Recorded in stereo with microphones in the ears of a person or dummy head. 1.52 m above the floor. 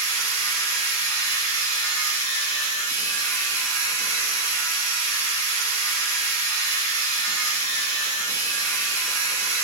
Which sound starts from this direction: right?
A machine running, at 0.0 s.